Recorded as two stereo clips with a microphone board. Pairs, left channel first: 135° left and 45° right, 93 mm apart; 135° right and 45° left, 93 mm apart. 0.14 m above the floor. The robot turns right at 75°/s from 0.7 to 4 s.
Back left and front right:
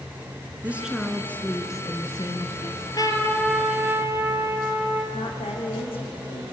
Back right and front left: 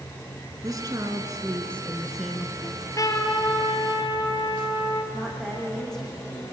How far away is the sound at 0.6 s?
About 2 m.